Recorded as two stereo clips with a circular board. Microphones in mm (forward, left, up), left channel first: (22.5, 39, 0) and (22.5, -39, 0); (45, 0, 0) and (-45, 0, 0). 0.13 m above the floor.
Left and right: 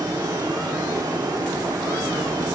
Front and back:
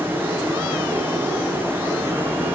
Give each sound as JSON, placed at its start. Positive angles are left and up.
{"t": 0.0, "sound": "running water", "azimuth_deg": -115, "distance_m": 5.5}